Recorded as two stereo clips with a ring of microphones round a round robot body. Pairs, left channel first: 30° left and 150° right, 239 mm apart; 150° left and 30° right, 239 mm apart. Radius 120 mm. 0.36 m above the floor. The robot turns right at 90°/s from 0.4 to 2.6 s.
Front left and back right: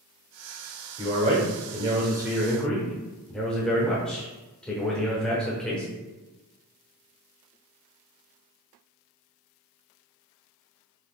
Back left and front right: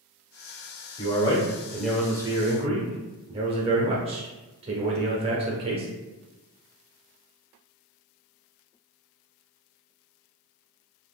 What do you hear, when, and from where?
1.0 s a man speaking: 165° left, 0.9 m; by 5.9 s 50° right, 0.9 m